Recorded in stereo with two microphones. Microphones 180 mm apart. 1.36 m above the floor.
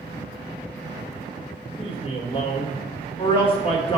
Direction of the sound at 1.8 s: 30° left (ahead or behind).